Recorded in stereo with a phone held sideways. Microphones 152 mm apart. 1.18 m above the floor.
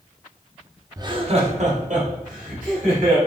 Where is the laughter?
25° right (ahead or behind), 0.6 m; by 3.2 s 65° right (ahead or behind), 3 m.